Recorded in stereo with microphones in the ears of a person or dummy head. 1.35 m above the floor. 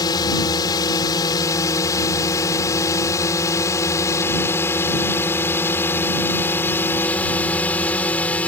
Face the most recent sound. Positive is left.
turn(degrees=5)  # may be behind; listen again after turning